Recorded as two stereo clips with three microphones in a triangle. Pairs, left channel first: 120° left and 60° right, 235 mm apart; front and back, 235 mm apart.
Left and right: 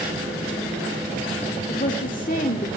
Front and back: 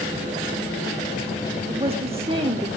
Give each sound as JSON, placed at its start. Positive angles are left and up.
{"t": 1.7, "sound": "a woman speaking", "azimuth_deg": 135, "distance_m": 0.9}